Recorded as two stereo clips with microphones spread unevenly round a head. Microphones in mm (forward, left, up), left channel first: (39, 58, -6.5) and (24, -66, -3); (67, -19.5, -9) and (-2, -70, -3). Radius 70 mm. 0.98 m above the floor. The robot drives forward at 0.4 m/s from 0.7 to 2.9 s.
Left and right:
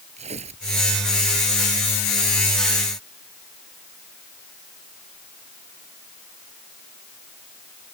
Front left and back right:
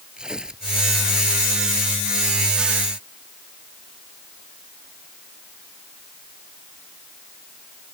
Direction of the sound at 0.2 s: 60° right.